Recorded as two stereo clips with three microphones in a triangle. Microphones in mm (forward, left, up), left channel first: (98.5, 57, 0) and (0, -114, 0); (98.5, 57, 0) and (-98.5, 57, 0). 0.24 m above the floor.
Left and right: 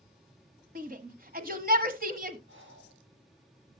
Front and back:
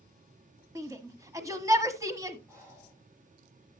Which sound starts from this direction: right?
Breathing, at 2.5 s.